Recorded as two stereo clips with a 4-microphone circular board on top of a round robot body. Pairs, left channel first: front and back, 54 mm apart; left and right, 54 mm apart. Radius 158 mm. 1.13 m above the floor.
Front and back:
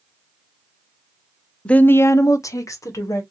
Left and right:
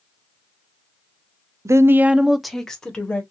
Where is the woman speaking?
70° right, 0.6 m; by 3.2 s 20° left, 1.5 m.